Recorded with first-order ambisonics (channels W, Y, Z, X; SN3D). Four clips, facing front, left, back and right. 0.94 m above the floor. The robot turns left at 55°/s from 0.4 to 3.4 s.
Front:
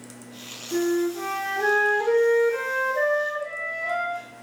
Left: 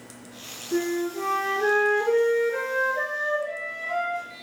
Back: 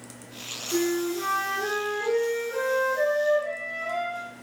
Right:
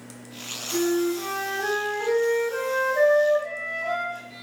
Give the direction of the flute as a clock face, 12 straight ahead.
10 o'clock.